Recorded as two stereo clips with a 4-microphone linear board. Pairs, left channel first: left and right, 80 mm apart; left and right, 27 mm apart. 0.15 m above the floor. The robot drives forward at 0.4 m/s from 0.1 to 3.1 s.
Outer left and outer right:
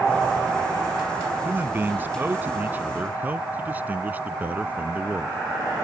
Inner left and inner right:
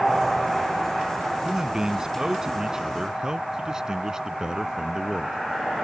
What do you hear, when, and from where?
1.4 s a man speaking: 25° right (ahead or behind)